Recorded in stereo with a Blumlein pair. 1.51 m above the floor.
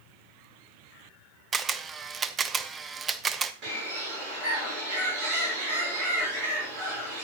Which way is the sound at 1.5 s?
20° right.